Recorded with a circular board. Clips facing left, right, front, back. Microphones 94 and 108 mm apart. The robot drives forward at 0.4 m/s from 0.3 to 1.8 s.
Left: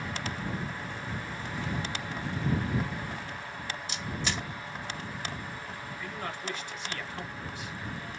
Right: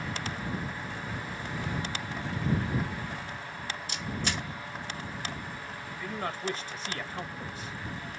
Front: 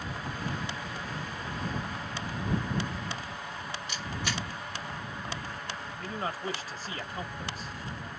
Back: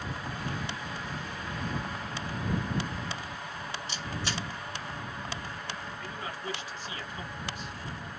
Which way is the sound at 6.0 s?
40° right.